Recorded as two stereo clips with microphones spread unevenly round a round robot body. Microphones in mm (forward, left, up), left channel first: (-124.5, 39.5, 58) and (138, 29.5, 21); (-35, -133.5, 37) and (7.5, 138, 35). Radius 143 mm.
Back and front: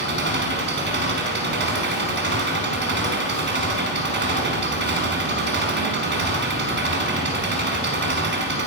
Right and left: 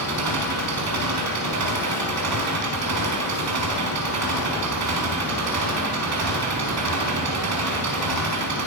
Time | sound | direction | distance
0.0 | an engine running | 45° left | 5.5 m